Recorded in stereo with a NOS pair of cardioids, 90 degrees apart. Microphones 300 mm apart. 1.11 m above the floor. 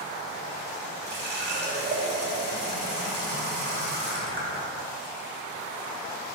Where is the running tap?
35° right, 1.4 m.